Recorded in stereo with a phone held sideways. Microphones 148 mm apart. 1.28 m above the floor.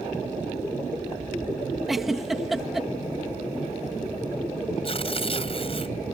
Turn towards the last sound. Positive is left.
turn(degrees=40)  # may be behind; listen again after turning